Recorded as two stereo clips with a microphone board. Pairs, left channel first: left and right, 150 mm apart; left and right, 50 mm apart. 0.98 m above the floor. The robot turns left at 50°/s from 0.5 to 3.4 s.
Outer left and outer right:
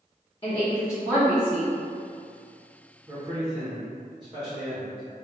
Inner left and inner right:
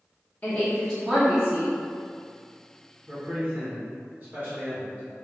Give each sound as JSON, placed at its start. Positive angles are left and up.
{"t": 0.4, "sound": "a woman speaking", "azimuth_deg": 40, "distance_m": 0.7}
{"t": 3.1, "sound": "a man speaking", "side_deg": -20, "distance_m": 0.7}